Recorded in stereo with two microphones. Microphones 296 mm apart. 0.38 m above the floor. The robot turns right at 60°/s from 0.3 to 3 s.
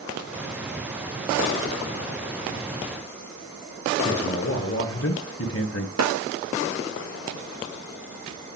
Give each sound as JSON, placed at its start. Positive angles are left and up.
{"t": 4.0, "sound": "a man speaking", "side_deg": 45, "distance_m": 2.0}
{"t": 6.0, "sound": "a snare drum", "side_deg": -60, "distance_m": 0.7}